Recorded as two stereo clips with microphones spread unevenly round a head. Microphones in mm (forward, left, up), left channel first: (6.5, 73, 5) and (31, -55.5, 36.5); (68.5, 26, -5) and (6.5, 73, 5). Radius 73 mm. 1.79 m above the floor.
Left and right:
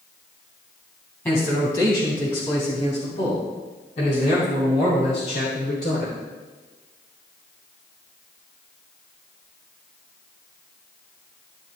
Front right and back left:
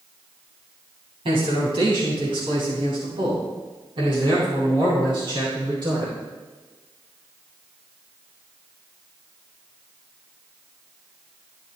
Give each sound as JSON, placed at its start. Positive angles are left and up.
{"t": 1.2, "sound": "a man speaking", "azimuth_deg": 180, "distance_m": 3.5}